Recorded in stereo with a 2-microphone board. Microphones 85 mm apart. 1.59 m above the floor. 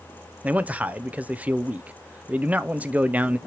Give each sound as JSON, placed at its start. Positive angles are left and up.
{"t": 0.4, "sound": "a man speaking", "side_deg": -15, "distance_m": 1.0}